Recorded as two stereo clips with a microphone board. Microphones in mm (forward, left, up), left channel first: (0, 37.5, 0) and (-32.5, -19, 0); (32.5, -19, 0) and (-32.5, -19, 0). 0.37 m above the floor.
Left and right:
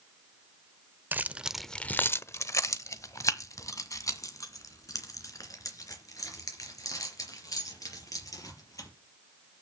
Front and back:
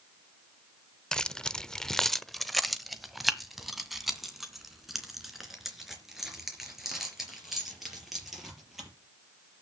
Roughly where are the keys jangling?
Right.